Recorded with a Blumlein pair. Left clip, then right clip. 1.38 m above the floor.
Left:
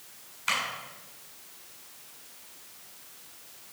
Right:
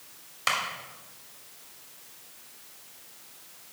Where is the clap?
45° right, 3 m.